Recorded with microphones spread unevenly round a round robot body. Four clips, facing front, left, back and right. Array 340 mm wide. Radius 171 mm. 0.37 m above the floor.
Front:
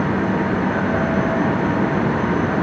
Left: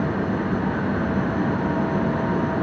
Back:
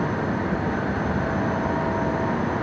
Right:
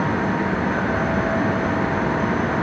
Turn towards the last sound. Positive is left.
No sound to turn to.